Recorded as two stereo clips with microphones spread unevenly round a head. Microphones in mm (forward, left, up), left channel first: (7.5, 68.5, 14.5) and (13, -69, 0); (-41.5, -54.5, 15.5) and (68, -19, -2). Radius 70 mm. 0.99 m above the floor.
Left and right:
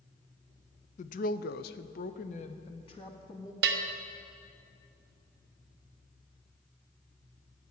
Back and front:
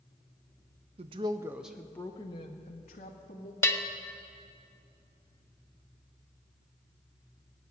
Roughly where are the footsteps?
I don't hear footsteps.